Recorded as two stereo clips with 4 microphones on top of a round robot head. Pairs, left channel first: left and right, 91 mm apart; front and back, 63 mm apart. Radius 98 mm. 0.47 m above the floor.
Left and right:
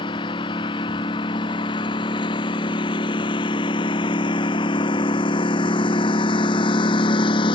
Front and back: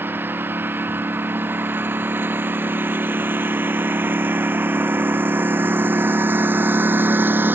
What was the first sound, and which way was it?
A lawn mower, 125° left.